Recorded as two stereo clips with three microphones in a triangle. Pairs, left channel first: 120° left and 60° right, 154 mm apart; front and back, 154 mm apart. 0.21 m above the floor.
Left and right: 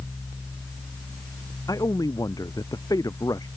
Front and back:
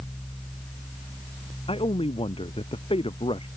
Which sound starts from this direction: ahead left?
A man speaking, at 1.7 s.